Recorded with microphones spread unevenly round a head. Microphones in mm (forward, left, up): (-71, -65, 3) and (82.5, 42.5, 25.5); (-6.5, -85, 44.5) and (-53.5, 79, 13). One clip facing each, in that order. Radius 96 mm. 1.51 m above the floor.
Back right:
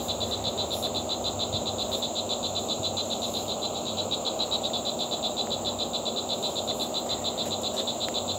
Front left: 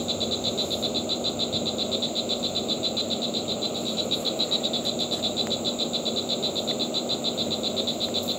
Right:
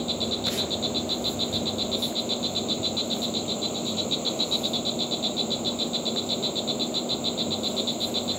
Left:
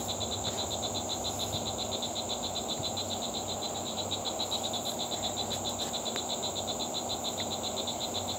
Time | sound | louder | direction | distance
0.0 | an insect | front left 3 dB, right 7 dB | 25° right | ?